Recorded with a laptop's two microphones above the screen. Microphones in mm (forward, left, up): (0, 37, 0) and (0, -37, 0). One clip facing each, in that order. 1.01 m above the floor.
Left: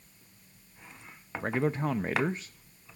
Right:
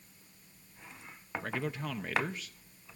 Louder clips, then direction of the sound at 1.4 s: Left 9 dB; 35° left (ahead or behind).